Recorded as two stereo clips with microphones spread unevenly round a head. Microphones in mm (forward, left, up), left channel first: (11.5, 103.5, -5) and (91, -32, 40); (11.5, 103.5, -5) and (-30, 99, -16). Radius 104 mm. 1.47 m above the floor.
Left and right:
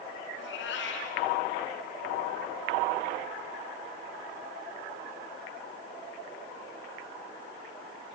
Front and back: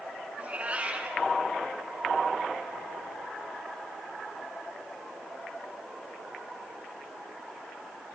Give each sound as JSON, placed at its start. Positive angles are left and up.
{"t": 0.4, "sound": "a cat meowing", "azimuth_deg": 125, "distance_m": 5.0}